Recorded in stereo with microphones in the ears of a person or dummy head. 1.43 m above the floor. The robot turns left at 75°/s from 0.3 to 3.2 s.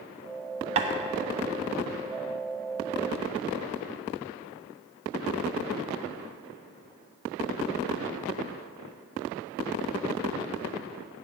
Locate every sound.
0.8 s tapping: 35° right (ahead or behind), 0.7 m; by 0.9 s 45° right (ahead or behind), 0.7 m